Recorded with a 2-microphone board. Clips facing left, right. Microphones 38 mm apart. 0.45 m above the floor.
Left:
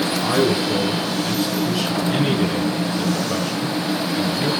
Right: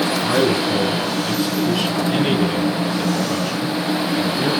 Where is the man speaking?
5° left (ahead or behind), 6.5 m; by 4.5 s centre (ahead or behind), 9 m.